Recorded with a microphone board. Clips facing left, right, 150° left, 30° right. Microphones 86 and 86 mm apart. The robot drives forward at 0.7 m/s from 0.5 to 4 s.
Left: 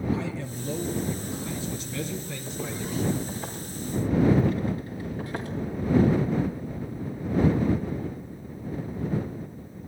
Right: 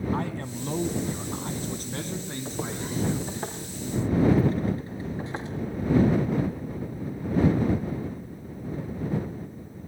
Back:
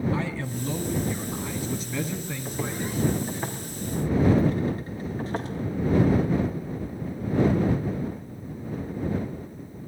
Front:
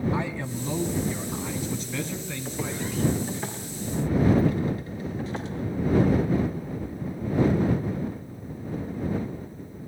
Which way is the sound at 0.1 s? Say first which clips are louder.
Right 1 dB, even; 95° right.